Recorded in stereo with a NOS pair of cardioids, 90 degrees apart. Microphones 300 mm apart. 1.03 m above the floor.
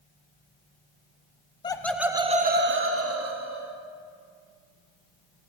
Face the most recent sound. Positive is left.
turn(degrees=-65)